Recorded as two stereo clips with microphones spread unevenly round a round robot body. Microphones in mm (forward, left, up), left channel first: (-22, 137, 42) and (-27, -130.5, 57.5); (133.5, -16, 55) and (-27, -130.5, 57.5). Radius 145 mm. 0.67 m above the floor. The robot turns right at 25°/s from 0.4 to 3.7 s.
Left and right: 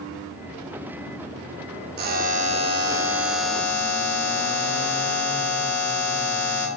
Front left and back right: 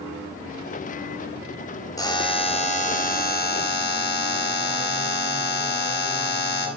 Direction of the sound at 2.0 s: 35° right.